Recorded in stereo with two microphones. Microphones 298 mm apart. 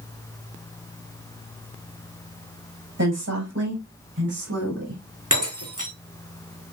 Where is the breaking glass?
80° right, 6 m.